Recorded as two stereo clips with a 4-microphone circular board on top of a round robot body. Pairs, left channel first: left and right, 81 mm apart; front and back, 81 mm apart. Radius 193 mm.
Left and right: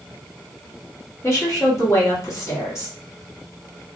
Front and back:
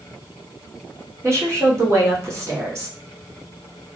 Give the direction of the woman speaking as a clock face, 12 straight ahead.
8 o'clock.